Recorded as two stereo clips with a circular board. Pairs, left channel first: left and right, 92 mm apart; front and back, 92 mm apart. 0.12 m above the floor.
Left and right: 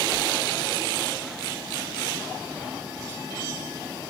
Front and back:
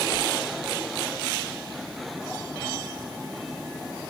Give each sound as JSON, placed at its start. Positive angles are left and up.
{"t": 0.1, "sound": "a whoosh", "azimuth_deg": 5, "distance_m": 1.0}